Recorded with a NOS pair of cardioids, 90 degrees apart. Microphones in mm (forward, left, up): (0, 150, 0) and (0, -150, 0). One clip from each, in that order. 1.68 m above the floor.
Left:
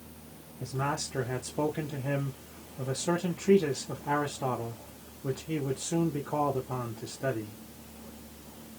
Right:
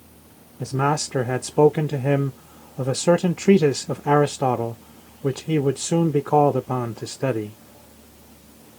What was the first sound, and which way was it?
A man speaking, 50° right.